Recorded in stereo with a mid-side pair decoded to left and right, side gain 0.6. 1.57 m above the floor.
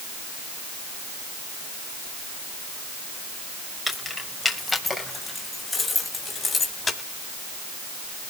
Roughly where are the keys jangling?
Ahead.